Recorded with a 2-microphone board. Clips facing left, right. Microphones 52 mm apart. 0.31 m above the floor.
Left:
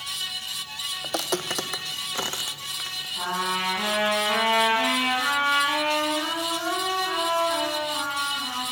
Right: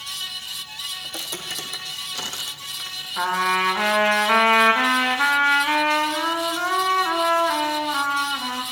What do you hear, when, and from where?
1.0 s footsteps: 70° left (ahead or behind), 0.6 m; by 3.1 s 10° left (ahead or behind), 1.3 m
3.2 s a trumpet: 70° right (ahead or behind), 1.5 m